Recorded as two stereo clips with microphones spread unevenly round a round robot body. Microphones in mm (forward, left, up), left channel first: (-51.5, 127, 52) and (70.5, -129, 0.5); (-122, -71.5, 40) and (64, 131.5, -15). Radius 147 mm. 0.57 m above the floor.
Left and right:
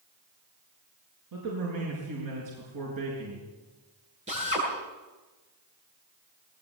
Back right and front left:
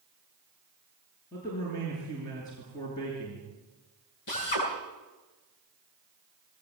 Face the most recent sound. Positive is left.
turn(degrees=-135)